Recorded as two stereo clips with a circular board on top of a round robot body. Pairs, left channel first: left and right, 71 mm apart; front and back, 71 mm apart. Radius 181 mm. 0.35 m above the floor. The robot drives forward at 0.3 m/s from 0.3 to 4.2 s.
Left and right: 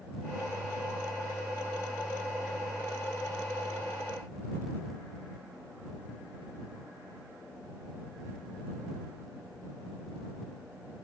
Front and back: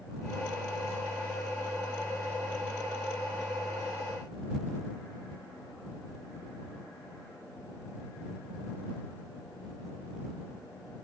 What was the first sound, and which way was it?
Only background noise.